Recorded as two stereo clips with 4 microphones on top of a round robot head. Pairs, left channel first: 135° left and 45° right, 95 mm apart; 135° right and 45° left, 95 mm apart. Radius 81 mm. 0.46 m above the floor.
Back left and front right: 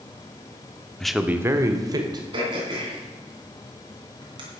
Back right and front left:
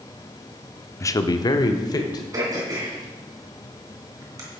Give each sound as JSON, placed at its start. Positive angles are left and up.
{"t": 1.0, "sound": "a man speaking", "azimuth_deg": -150, "distance_m": 0.8}
{"t": 2.3, "sound": "throat clearing", "azimuth_deg": -5, "distance_m": 3.0}